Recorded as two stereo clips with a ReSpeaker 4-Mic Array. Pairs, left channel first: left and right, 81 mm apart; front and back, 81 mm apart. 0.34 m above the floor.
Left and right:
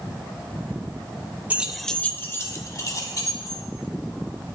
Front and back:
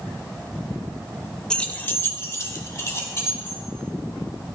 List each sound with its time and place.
1.5 s keys jangling: 65° right, 0.7 m; by 3.6 s 55° left, 2.5 m